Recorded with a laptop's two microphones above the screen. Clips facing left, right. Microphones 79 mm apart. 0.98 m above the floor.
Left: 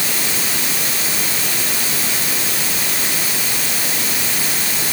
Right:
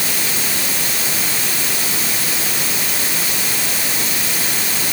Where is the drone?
No drone in this recording.